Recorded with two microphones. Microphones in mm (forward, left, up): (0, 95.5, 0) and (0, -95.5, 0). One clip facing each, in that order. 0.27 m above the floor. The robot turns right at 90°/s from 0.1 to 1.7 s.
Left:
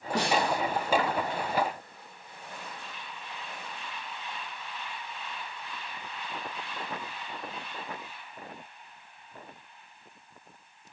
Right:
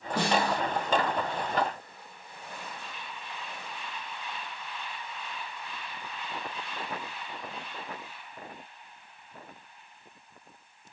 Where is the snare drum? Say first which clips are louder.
Even; 90° left, 2.5 m; by 0.6 s 130° left, 2.5 m.